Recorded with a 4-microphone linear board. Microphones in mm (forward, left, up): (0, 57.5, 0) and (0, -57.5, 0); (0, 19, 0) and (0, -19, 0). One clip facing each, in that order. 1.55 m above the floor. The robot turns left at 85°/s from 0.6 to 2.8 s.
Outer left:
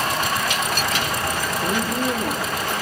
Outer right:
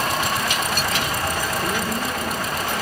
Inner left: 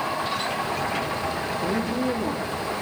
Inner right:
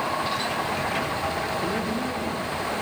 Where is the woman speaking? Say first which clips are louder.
Outer left 2 dB, inner left 2 dB; 130° left, 3.5 m; by 2.7 s 35° left, 3.5 m.